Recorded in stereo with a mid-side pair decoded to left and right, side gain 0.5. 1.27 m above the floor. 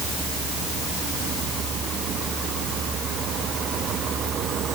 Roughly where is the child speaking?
No child speaking in this recording.